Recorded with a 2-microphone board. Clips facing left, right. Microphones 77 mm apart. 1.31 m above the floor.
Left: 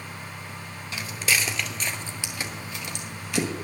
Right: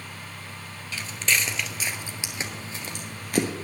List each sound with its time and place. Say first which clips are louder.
0.9 s footsteps: even; 15° left (ahead or behind), 1.6 m; by 3.5 s 50° right (ahead or behind), 2.0 m